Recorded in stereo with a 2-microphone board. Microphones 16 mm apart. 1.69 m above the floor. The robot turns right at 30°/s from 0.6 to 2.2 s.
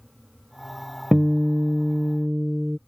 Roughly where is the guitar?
Right.